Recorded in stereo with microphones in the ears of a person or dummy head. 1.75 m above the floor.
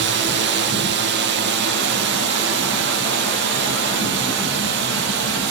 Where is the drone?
55° right (ahead or behind); by 5.5 s 60° right (ahead or behind).